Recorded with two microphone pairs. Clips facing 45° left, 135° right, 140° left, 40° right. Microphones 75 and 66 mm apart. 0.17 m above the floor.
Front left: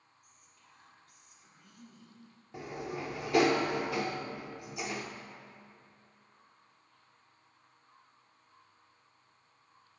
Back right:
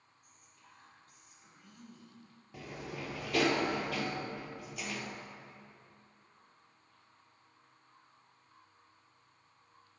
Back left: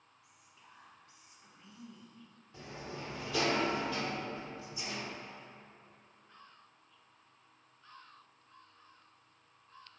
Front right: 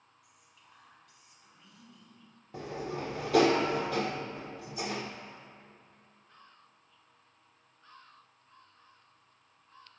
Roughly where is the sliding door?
Ahead.